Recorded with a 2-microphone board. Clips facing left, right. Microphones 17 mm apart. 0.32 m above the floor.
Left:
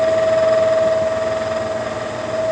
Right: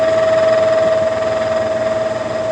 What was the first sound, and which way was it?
Only background noise.